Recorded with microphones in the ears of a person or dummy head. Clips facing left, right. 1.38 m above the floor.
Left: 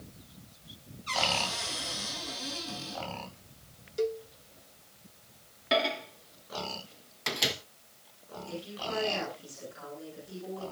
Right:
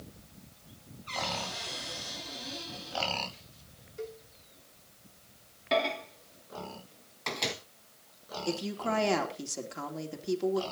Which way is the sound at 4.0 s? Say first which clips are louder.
Left 11 dB; 55° left (ahead or behind).